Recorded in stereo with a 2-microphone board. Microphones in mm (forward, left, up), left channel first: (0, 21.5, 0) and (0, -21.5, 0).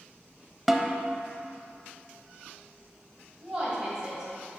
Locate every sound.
0.7 s a snare drum: centre (ahead or behind), 0.5 m
3.4 s a woman speaking: 10° right (ahead or behind), 1.7 m